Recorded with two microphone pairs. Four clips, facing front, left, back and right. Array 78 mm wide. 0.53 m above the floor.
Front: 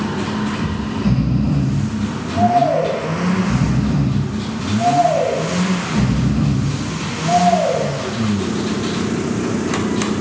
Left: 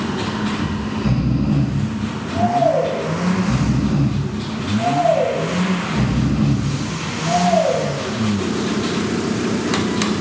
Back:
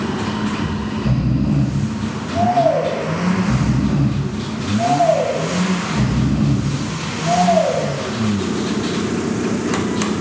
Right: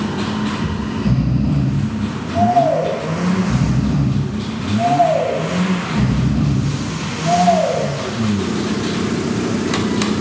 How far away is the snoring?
About 3.5 m.